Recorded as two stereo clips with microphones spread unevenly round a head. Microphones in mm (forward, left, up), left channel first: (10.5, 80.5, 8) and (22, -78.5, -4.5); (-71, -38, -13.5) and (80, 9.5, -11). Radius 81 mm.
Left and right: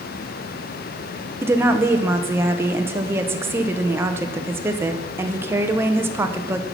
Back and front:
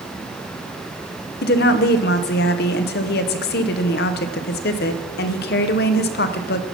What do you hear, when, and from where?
1.4 s a woman speaking: 155° right, 0.7 m